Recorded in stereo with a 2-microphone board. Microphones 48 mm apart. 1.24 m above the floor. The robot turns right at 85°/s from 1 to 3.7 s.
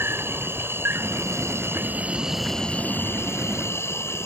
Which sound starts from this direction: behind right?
An insect, at 0.0 s.